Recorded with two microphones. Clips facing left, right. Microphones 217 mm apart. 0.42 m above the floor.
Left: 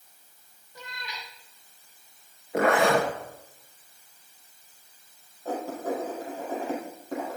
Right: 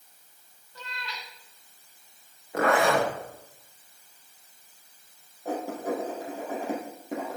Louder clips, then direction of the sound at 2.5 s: Left 1 dB; 20° left (ahead or behind).